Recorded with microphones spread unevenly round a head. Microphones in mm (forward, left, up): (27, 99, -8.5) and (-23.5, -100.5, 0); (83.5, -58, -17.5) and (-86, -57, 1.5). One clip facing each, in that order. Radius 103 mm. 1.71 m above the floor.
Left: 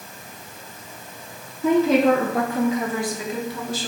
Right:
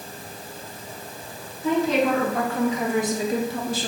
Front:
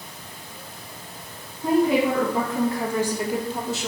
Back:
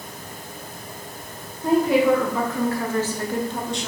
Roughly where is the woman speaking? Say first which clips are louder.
Left 4 dB, back 2 dB; left.